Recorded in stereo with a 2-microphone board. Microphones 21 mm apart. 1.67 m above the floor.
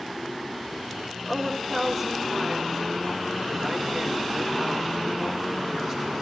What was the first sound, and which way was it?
A woman speaking, centre (ahead or behind).